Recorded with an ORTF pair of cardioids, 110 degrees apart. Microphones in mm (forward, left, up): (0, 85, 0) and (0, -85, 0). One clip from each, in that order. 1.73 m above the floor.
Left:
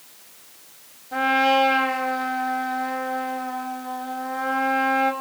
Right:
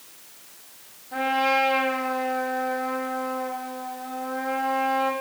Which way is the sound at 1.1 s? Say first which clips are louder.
Left 3 dB; 25° left.